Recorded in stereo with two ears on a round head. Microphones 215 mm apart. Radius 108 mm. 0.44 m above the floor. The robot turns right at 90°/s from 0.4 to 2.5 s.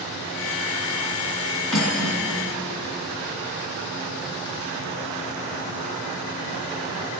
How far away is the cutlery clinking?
About 2.5 m.